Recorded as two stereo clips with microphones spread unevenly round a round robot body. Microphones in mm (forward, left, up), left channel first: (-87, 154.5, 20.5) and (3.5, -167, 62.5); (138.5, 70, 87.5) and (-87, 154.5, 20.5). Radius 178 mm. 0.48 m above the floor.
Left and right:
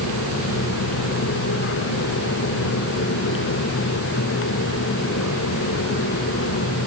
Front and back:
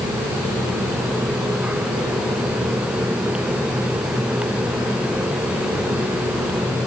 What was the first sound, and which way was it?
Only background noise.